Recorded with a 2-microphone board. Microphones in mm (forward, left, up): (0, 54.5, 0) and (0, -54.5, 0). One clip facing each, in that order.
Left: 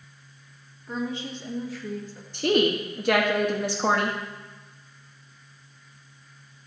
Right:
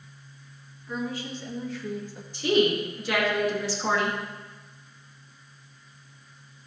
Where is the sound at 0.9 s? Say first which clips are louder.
Left 1 dB; 30° left (ahead or behind), 1.5 m; by 2.2 s 20° right (ahead or behind), 1.0 m.